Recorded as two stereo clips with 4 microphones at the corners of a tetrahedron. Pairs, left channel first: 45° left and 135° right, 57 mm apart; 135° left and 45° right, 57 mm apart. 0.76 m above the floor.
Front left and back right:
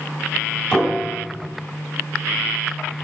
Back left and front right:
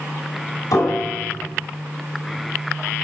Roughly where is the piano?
Behind left.